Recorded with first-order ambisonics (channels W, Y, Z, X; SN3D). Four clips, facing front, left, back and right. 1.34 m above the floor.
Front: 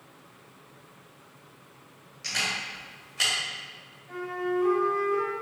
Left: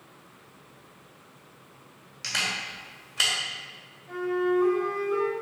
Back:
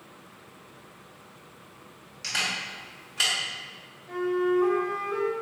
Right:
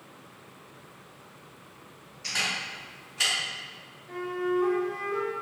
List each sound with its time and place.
2.2 s a camera shutter: 105° left, 1.8 m
4.1 s a flute: 140° left, 1.2 m